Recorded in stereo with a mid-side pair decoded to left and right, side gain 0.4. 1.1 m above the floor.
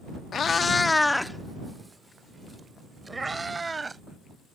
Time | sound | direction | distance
0.3 | a cat meowing | 60° left | ?